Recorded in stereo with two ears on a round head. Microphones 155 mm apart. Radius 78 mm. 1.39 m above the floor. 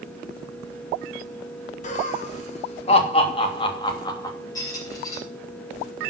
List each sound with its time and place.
1.8 s laughter: 45° left (ahead or behind), 3.5 m; by 4.4 s 20° left (ahead or behind), 2.5 m
4.5 s a squeak: 20° left (ahead or behind), 5.5 m